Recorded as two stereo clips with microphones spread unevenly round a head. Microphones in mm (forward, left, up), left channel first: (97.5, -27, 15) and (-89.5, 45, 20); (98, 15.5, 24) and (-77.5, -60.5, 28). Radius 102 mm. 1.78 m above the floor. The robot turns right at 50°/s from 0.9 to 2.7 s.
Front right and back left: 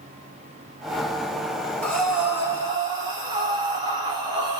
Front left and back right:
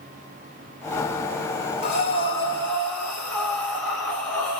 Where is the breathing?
60° left, 2.0 m; by 4.6 s 100° left, 2.0 m.